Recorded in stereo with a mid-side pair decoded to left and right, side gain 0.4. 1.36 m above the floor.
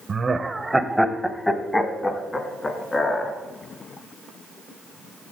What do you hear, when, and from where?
0.1 s laughter: 45° right, 0.7 m; by 3.3 s 35° left, 2.5 m